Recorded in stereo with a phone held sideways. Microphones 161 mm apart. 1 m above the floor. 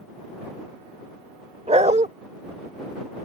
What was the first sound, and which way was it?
A dog barking, 45° right (ahead or behind).